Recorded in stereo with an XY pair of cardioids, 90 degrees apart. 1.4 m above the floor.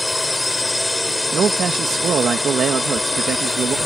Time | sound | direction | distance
0.0 | a drone | 15° left | ?
1.3 | a man speaking | 60° right | ?